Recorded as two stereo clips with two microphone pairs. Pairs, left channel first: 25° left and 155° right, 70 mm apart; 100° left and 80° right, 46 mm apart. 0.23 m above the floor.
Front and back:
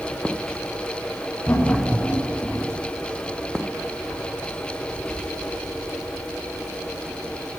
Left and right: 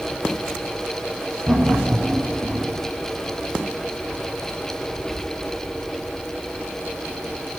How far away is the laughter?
About 2.5 m.